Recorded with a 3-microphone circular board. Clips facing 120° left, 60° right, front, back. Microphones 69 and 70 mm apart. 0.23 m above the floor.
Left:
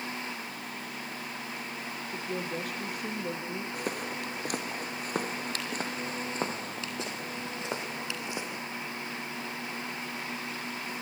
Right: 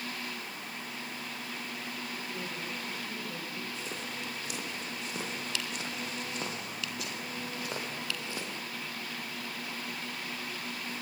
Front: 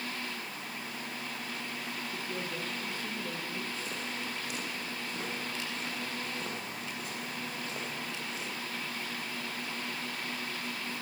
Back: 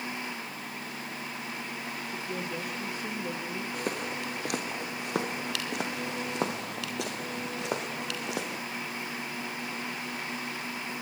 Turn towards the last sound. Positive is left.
turn(degrees=-165)